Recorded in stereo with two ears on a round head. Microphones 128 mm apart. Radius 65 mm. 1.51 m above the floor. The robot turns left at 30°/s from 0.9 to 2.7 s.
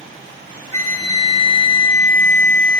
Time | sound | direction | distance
0.7 | a flute | 125° left | 2.5 m